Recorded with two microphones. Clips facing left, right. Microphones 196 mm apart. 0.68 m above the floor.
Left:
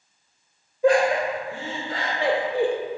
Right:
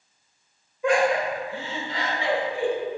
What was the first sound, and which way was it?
Laughter, 35° left (ahead or behind).